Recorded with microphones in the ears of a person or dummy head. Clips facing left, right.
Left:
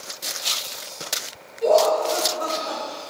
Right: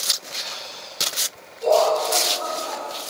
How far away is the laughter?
About 3.5 m.